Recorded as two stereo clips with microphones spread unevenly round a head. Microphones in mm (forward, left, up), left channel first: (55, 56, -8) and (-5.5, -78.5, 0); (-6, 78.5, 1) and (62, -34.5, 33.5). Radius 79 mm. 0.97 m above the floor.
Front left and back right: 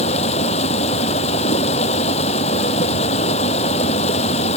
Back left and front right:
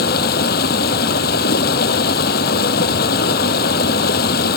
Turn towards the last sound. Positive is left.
turn(degrees=120)